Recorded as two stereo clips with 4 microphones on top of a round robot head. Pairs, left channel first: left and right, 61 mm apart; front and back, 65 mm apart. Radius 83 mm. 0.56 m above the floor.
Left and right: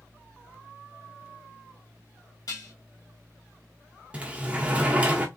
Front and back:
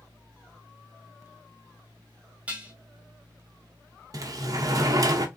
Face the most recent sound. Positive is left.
turn(degrees=-160)